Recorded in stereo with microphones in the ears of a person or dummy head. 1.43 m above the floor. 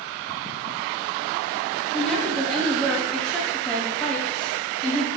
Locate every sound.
1.9 s a woman speaking: 5° left (ahead or behind), 0.6 m